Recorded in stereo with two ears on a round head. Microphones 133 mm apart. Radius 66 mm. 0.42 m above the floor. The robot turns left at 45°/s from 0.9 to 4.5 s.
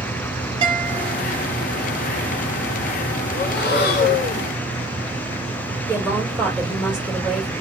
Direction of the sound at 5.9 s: 5° right (ahead or behind).